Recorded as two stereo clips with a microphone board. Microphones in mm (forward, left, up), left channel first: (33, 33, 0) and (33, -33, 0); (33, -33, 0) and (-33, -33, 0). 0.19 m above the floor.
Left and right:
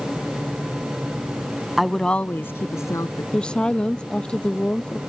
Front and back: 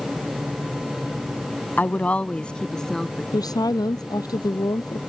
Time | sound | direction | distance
1.8 | a woman speaking | 5° right | ?
3.3 | a woman speaking | 15° left | ?